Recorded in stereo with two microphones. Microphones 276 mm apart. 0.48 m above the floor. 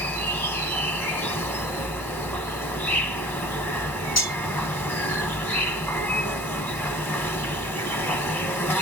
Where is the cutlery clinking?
65° left (ahead or behind), 1.3 m.